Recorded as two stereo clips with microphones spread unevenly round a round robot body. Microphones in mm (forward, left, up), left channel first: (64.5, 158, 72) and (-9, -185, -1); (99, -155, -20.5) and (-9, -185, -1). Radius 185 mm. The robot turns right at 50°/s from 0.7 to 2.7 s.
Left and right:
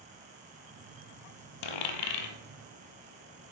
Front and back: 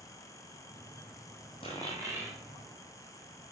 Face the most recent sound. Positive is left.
turn(degrees=140)